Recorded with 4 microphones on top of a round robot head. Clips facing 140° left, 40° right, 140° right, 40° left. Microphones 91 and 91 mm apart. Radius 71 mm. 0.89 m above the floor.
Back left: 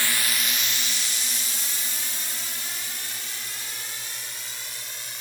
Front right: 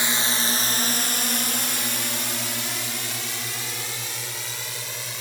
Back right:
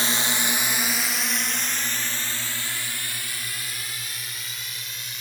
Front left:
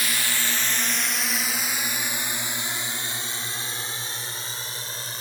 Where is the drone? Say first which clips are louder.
Front right 3 dB, back right 2 dB; 95° right; by 5.2 s 20° right.